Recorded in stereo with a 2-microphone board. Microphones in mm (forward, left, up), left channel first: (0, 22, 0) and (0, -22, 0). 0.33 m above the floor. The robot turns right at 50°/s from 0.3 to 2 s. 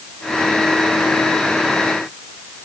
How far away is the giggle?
No giggle in this recording.